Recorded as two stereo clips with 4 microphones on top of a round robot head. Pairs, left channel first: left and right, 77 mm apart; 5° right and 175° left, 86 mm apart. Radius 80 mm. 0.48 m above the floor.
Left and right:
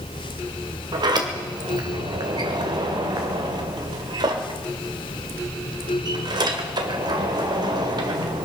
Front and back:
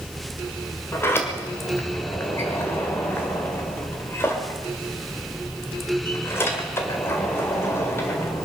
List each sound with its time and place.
0.9 s a sliding door: 70° right, 1.8 m